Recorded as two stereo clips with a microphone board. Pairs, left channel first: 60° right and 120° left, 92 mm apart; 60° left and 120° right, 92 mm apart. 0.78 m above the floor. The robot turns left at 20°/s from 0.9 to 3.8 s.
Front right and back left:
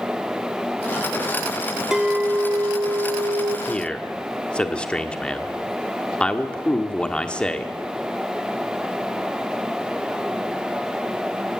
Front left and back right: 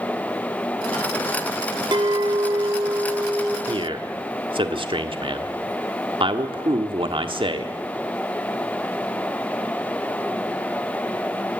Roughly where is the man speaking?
Behind right.